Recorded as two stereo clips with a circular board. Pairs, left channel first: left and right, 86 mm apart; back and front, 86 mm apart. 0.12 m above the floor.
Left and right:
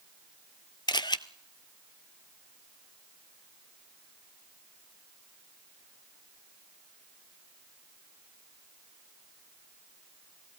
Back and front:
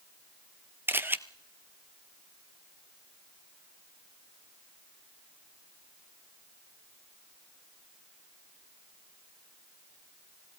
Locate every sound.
0.9 s a camera shutter: 65° left, 0.9 m